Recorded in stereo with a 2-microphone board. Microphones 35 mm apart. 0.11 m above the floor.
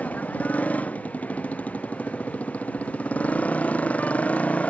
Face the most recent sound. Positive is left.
turn(degrees=40)  # may be behind; listen again after turning